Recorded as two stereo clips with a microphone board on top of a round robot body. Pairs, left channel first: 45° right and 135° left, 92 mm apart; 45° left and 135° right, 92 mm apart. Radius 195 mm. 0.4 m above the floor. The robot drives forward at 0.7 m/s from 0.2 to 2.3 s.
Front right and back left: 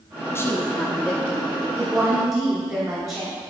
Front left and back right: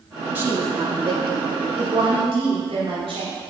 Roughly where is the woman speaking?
Right.